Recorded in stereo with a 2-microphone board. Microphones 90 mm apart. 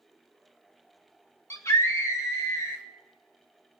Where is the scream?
35° left (ahead or behind), 1.3 m.